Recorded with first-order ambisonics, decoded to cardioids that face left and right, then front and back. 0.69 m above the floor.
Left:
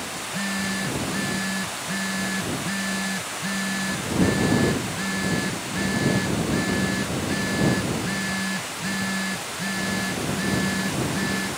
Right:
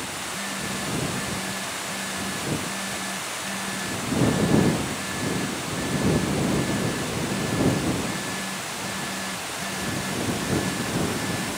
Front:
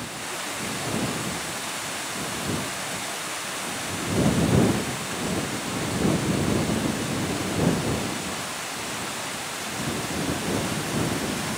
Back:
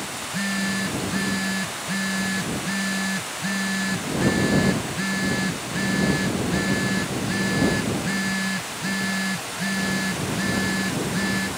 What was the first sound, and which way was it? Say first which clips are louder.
A phone buzzing: left 5 dB, back 4 dB; 155° left.